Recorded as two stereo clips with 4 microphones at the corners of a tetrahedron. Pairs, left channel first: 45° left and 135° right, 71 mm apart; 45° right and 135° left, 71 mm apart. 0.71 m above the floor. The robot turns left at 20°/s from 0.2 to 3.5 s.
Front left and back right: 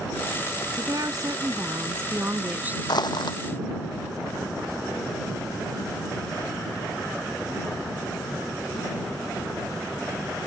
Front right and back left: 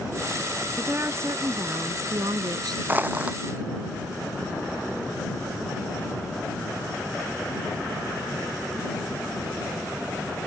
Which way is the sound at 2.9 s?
70° left.